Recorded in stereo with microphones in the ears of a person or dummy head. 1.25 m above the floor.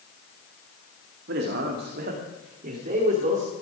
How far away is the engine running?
No engine running in this recording.